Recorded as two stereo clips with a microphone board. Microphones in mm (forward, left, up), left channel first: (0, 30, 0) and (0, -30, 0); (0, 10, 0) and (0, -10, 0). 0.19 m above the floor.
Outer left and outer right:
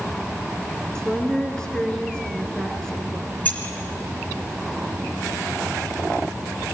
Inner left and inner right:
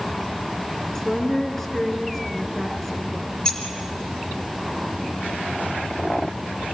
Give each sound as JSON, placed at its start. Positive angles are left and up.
{"t": 0.9, "sound": "a woman speaking", "side_deg": 15, "distance_m": 2.5}
{"t": 3.5, "sound": "keys jangling", "side_deg": 35, "distance_m": 2.0}